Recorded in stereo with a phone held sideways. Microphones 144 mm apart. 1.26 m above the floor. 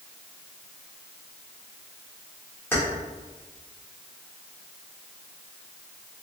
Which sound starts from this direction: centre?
Keys jangling, at 2.7 s.